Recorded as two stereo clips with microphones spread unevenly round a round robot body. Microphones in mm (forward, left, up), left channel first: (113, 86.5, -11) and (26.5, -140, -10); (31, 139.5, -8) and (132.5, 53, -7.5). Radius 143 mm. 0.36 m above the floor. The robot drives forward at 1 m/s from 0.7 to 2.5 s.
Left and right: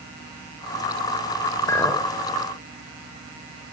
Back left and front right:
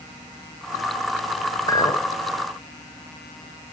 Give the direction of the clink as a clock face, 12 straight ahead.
8 o'clock.